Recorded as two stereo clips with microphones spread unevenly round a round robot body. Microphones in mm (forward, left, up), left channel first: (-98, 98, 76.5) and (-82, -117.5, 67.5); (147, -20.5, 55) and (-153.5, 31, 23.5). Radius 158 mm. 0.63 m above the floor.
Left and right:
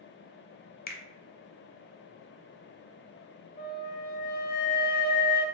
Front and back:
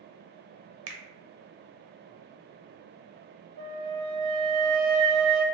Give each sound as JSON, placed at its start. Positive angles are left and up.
{"t": 0.9, "sound": "a finger snap", "azimuth_deg": 140, "distance_m": 0.6}
{"t": 3.6, "sound": "a flute", "azimuth_deg": 135, "distance_m": 0.6}